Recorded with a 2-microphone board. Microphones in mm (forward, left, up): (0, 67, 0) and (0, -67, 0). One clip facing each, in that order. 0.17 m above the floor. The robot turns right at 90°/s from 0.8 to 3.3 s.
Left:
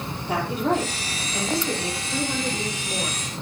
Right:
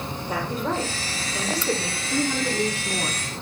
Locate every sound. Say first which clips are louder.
0.3 s a woman speaking: left 4 dB; 105° left, 4.5 m; by 3.2 s 40° right, 4.5 m